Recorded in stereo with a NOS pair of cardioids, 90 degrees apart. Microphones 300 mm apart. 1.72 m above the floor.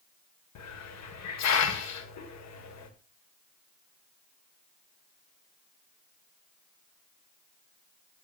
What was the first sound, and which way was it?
A hiss, 60° left.